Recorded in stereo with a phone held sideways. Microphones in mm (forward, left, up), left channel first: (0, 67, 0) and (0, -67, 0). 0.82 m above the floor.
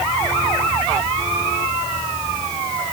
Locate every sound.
Only background noise.